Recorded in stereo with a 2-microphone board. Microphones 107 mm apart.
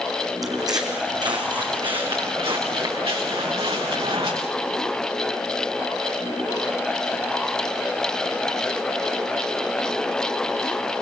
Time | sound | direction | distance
0.4 | footsteps | 35° right (ahead or behind) | 3.5 m